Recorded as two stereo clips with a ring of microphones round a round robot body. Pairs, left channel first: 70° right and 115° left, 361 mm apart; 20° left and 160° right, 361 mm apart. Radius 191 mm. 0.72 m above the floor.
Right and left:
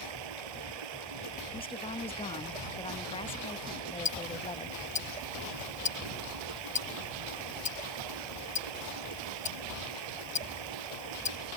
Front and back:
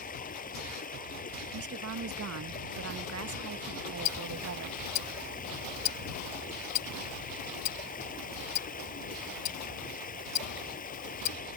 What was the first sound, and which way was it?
Running water, 90° left.